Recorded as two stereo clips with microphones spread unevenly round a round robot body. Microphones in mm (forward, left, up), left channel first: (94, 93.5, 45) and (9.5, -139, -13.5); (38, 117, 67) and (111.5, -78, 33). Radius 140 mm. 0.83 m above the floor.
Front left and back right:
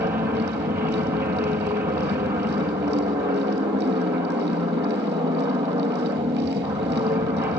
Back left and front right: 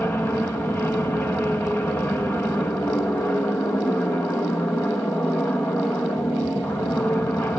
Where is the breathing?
I don't hear breathing.